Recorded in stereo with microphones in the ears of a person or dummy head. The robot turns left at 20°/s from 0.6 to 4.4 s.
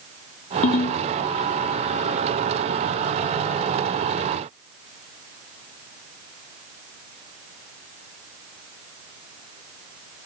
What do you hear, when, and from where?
0.6 s a ringtone: 40° left (ahead or behind), 0.9 m; by 1.0 s 35° left (ahead or behind), 0.9 m